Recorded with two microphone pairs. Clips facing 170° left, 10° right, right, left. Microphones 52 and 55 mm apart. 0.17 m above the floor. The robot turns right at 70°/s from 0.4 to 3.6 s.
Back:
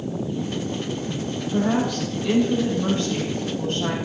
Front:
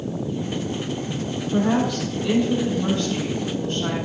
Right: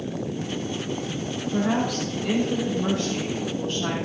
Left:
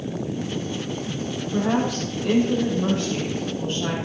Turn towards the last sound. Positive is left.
turn(degrees=150)